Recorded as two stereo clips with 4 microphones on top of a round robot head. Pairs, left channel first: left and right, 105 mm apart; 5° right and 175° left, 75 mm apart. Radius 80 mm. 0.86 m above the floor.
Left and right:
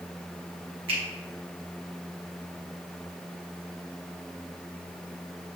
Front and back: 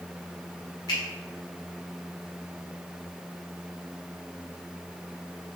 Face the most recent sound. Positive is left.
turn(degrees=-50)